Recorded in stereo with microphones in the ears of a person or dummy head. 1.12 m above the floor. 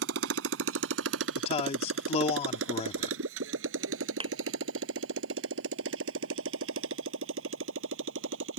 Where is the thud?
35° right (ahead or behind).